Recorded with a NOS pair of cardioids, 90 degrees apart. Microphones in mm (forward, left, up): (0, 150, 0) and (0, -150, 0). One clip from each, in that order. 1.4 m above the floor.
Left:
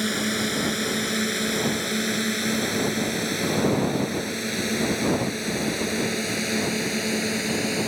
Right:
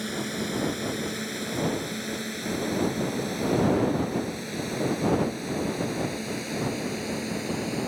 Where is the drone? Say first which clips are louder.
Left 6 dB; 60° left; by 7.9 s 65° left.